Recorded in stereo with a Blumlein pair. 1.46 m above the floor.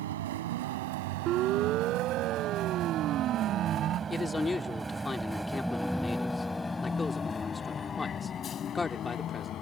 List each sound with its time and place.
0.0 s a vehicle: 55° right; by 9.6 s 30° left
1.3 s a siren: 35° right
4.1 s a man speaking: 10° left